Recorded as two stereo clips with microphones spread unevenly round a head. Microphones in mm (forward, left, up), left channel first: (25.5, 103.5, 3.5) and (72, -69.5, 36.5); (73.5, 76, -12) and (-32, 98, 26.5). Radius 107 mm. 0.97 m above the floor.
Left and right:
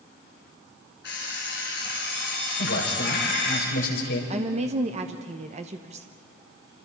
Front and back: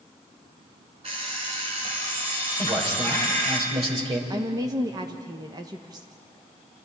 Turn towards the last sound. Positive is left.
turn(degrees=-120)